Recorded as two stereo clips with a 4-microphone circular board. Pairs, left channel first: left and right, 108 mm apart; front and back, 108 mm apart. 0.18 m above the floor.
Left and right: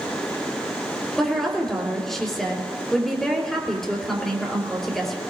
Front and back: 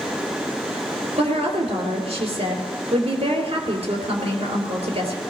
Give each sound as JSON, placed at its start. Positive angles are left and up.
{"t": 1.2, "sound": "a woman speaking", "azimuth_deg": 175, "distance_m": 3.5}